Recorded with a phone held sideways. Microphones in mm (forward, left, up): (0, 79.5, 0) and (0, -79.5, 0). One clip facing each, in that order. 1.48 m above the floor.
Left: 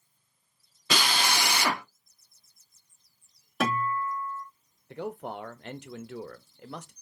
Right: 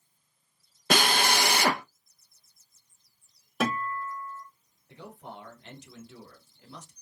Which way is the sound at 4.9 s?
70° left (ahead or behind).